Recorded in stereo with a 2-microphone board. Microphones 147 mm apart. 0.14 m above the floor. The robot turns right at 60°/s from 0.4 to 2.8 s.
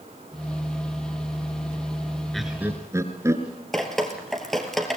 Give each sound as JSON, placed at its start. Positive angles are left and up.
{"t": 2.3, "sound": "laughter", "side_deg": 0, "distance_m": 2.5}
{"t": 3.7, "sound": "dripping", "side_deg": 5, "distance_m": 2.5}